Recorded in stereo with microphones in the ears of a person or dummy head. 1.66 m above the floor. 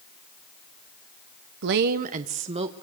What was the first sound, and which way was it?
A woman speaking, 60° right (ahead or behind).